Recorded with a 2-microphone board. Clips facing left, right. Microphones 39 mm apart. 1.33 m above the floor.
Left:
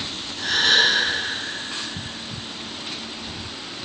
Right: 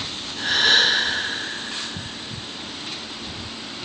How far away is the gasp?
About 2 m.